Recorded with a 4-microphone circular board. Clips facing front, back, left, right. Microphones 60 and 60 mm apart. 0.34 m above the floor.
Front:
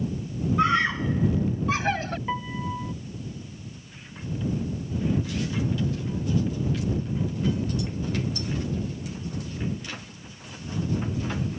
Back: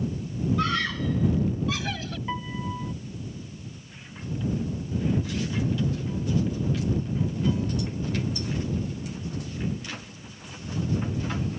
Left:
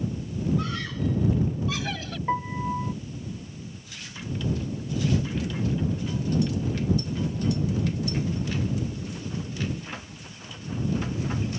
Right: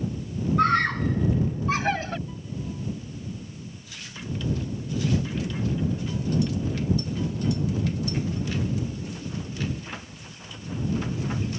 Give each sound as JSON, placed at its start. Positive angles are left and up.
{"t": 0.6, "sound": "a scream", "azimuth_deg": -65}
{"t": 2.3, "sound": "a piano", "azimuth_deg": 80}